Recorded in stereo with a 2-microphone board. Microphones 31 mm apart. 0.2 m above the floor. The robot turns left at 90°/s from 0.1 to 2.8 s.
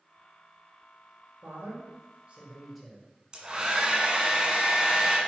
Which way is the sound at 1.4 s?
55° right.